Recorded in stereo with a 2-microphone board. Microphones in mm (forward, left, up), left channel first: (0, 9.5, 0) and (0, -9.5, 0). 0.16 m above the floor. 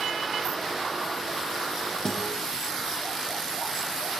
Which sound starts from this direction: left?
A guitar, at 2.0 s.